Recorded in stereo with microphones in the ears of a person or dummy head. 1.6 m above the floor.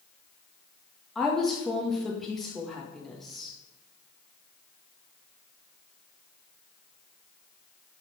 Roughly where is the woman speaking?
Centre.